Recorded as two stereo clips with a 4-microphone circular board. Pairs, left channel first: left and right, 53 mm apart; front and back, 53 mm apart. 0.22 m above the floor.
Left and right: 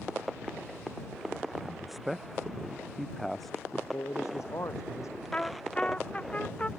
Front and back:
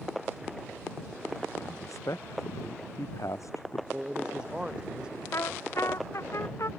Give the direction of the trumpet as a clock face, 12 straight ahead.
11 o'clock.